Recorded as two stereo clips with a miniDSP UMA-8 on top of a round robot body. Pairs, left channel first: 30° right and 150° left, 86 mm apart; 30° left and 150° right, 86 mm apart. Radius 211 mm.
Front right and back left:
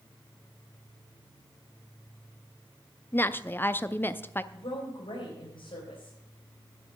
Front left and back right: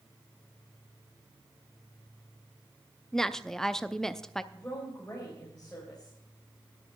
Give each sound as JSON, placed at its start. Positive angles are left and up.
{"t": 3.1, "sound": "a woman speaking", "azimuth_deg": -50, "distance_m": 0.8}
{"t": 4.5, "sound": "a woman speaking", "azimuth_deg": -45, "distance_m": 3.5}